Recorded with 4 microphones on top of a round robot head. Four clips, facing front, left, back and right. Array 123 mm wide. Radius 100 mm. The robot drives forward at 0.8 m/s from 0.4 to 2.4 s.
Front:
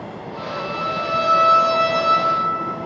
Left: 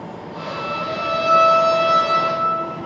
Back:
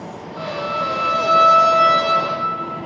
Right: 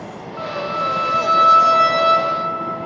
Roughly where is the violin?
Behind right.